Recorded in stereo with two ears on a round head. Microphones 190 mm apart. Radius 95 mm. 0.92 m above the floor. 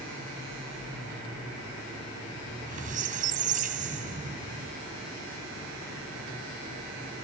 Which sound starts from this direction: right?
A squeak, at 2.5 s.